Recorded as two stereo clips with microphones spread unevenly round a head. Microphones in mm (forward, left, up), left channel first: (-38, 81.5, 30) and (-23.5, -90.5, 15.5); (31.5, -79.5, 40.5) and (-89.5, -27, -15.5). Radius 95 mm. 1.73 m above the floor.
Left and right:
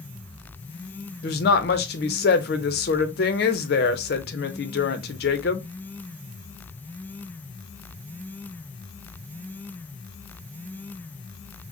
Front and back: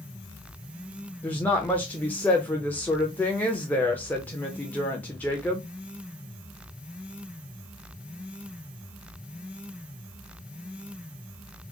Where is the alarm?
I don't hear an alarm.